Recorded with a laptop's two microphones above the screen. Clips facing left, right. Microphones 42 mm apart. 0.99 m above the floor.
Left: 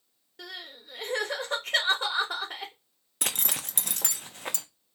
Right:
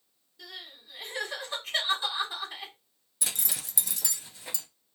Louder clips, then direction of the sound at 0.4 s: Left 3 dB; 75° left (ahead or behind).